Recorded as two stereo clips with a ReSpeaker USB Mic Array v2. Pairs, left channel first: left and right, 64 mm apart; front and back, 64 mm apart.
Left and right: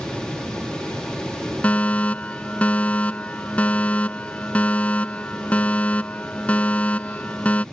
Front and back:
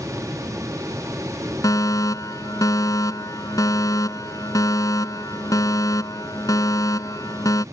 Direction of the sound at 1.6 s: 20° left.